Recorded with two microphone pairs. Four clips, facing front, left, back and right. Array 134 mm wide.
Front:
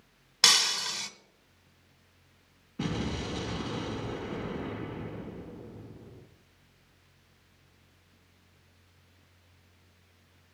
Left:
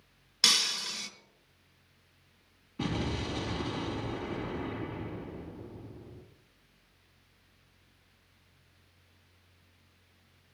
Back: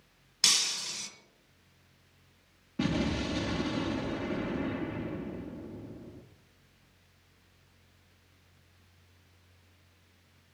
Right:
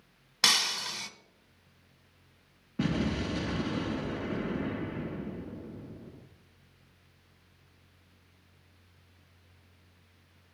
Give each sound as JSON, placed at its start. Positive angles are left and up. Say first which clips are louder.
{"t": 0.4, "sound": "breaking glass", "louder": "right 3 dB, front 8 dB", "azimuth_deg": -40, "distance_m": 1.0}
{"t": 2.8, "sound": "an explosion", "louder": "right 3 dB, back 3 dB", "azimuth_deg": -125, "distance_m": 2.5}